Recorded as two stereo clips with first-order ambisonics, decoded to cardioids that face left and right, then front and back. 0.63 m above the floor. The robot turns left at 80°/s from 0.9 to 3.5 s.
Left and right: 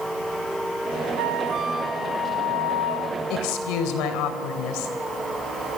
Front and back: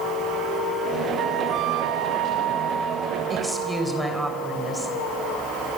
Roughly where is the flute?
Behind right.